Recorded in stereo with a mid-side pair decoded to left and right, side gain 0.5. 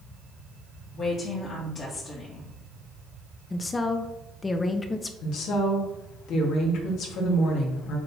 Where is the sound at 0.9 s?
50° left, 2.5 m.